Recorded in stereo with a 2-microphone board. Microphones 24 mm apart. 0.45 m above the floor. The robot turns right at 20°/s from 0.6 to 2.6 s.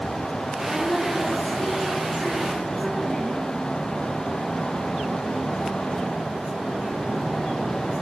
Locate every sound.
0.6 s a woman speaking: 125° left, 7.5 m; by 3.4 s 160° left, 7.5 m